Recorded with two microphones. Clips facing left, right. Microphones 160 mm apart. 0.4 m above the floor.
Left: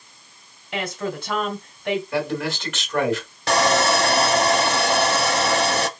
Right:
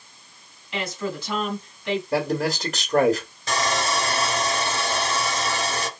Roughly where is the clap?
I don't hear a clap.